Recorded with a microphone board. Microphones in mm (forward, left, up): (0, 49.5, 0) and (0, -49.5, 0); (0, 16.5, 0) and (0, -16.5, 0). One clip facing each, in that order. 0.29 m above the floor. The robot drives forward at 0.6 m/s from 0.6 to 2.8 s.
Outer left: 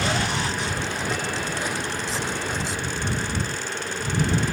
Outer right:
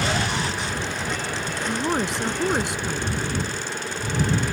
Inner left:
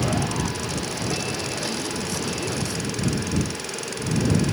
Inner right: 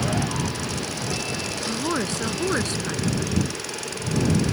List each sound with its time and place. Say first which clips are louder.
1.7 s a woman speaking: outer right 5 dB, inner right 3 dB; 60° right (ahead or behind); by 3.5 s 65° right (ahead or behind)